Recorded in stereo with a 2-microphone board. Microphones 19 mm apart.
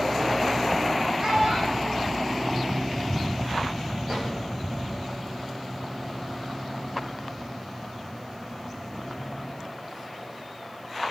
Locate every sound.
1.2 s a child speaking: 50° right (ahead or behind), 7.5 m
4.1 s a drawer: 45° right (ahead or behind), 6 m